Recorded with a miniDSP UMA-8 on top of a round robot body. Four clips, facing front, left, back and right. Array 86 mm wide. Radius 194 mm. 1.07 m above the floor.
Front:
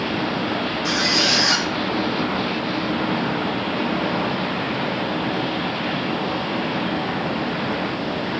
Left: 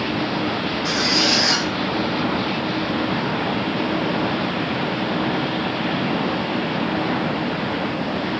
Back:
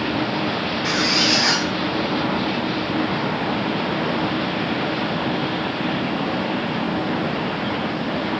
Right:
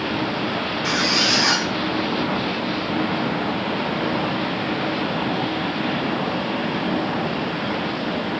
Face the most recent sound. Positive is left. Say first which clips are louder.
# left 1 dB, back 2 dB
turn(degrees=-145)